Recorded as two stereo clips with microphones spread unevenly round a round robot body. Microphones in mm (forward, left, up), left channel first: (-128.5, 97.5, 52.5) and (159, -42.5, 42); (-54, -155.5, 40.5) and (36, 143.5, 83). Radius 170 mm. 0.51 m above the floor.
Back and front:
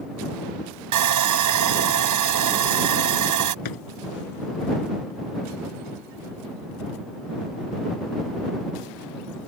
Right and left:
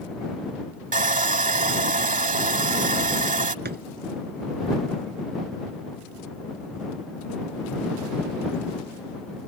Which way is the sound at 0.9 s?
5° left.